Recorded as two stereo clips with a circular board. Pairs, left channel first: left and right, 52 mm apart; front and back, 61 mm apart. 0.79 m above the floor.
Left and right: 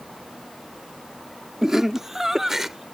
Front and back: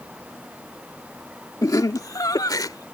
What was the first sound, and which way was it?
Laughter, 10° right.